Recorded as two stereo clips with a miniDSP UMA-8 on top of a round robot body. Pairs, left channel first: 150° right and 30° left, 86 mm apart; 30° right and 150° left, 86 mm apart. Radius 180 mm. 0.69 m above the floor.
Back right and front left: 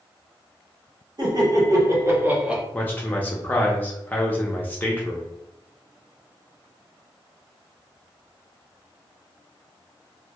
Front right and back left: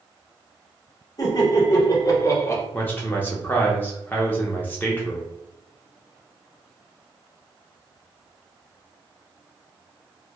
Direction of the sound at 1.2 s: 5° left.